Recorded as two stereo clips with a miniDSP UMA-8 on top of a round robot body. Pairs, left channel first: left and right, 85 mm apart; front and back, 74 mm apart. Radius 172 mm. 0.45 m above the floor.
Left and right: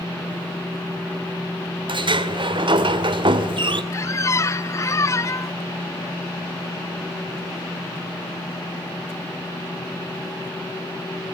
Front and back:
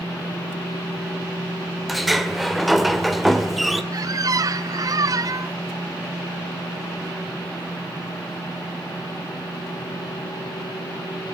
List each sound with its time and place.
1.9 s a sliding door: 90° right, 1.9 m
3.9 s a squeak: 145° left, 0.8 m